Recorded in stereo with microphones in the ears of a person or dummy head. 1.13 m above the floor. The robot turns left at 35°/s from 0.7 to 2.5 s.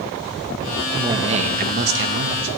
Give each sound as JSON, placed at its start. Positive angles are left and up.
{"t": 0.9, "sound": "a man speaking", "azimuth_deg": -25, "distance_m": 1.1}